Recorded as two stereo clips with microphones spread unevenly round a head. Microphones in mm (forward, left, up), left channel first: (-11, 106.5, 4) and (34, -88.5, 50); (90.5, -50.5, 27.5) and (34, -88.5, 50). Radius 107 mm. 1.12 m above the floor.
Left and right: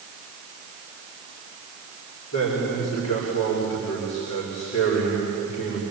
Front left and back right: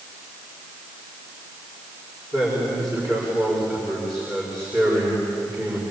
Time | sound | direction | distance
2.3 | a man speaking | 130° left | 6 m